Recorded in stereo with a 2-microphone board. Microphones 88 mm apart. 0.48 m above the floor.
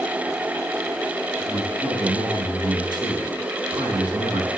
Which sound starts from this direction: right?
A man speaking, at 1.4 s.